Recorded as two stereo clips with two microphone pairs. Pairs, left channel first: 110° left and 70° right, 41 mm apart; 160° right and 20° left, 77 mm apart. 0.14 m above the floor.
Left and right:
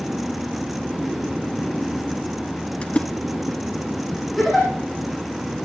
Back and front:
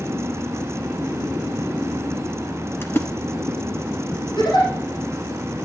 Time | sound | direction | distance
2.8 | a splash | 155° left | 1.1 m
4.4 | a giggle | 160° right | 7.5 m